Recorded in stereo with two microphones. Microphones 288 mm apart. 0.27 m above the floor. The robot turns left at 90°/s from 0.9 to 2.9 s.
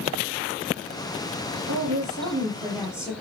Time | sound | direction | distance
1.7 | a woman speaking | 80° right | 6.5 m